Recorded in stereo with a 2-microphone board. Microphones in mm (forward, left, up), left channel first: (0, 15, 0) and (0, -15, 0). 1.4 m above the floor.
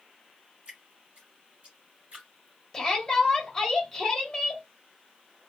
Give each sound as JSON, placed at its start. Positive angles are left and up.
{"t": 0.7, "sound": "dripping", "side_deg": -40, "distance_m": 1.5}
{"t": 2.7, "sound": "a shout", "side_deg": 20, "distance_m": 1.3}